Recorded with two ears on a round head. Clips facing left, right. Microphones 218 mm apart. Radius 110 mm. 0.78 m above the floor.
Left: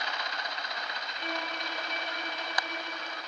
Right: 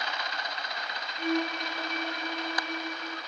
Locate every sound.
1.2 s a violin: 90° right, 7.5 m